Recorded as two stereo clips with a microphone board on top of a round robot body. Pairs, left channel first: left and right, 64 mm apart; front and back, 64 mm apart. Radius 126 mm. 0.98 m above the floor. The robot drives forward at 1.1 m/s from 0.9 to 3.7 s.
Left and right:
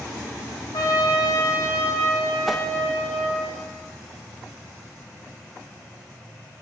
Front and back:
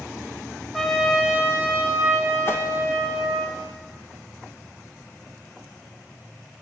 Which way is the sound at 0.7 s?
90° left.